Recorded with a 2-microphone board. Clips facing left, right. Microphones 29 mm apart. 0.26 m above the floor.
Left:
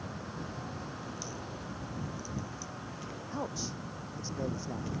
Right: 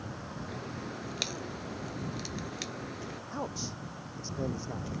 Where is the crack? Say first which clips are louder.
Right 2 dB; 75° right (ahead or behind).